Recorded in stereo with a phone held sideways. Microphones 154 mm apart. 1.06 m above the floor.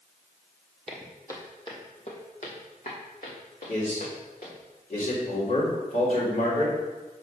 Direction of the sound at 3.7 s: 60° left (ahead or behind).